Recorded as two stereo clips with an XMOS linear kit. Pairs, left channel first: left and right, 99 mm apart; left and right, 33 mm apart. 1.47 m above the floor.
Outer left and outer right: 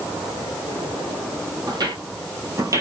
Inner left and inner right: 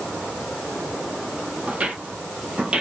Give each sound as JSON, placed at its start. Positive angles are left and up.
{"t": 1.7, "sound": "footsteps", "side_deg": -45, "distance_m": 2.0}